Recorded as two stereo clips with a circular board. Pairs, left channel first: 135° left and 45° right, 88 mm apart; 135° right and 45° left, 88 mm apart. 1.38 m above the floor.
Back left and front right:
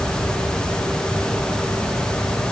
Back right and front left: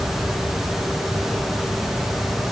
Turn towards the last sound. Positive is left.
No sound to turn to.